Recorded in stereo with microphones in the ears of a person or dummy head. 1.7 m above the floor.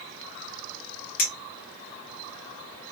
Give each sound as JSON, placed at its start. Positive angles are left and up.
{"t": 1.2, "sound": "a clink", "side_deg": 35, "distance_m": 0.8}